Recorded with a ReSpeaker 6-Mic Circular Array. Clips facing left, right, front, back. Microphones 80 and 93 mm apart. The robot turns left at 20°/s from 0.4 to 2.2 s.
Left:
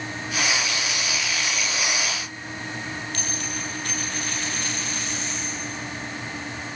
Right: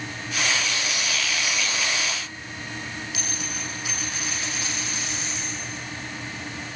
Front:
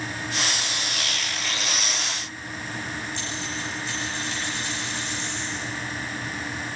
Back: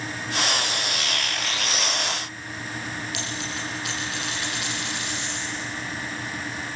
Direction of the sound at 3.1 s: 175° right.